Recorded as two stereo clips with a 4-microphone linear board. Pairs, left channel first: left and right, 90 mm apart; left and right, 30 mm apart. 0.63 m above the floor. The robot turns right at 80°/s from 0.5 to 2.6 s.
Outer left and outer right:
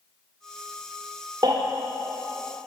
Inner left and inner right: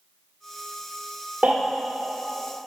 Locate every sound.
1.4 s a baby crying: 55° right (ahead or behind), 1.4 m; by 1.5 s 45° right (ahead or behind), 1.4 m